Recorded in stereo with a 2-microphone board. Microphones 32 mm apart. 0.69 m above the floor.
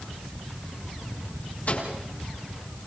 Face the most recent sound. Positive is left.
turn(degrees=55)  # may be behind; listen again after turning